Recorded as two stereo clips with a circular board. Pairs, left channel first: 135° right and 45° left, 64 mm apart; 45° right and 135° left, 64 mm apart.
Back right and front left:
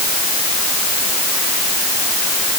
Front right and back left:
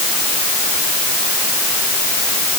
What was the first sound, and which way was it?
Only background noise.